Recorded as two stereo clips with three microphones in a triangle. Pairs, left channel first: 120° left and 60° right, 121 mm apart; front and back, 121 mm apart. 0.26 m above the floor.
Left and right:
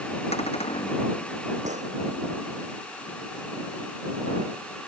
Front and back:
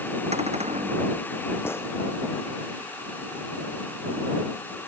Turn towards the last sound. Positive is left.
turn(degrees=-70)